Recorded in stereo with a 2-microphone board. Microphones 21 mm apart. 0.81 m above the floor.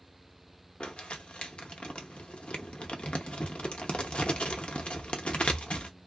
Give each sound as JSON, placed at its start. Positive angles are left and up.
{"t": 0.8, "sound": "crumpling", "side_deg": 70, "distance_m": 0.6}